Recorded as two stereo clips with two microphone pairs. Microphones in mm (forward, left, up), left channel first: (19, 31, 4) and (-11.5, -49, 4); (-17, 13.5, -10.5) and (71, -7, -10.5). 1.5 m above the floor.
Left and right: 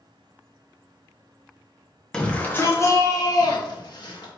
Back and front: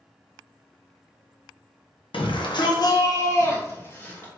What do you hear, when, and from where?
2.1 s a shout: 150° left, 1.0 m; by 4.3 s 100° left, 1.8 m